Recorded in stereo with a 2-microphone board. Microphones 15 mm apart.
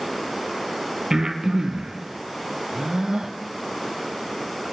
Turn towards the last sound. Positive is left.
turn(degrees=-45)  # may be behind; listen again after turning